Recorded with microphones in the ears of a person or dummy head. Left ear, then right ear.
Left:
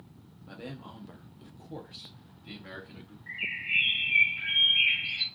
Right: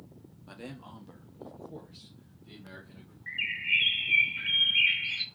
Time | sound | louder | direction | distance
0.5 | a man speaking | left 2 dB | 25° right (ahead or behind) | 0.6 m
3.3 | a bird | right 3 dB | 55° right (ahead or behind) | 0.7 m